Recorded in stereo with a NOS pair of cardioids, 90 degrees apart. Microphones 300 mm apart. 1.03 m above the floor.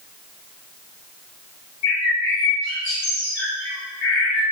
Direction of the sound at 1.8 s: 60° left.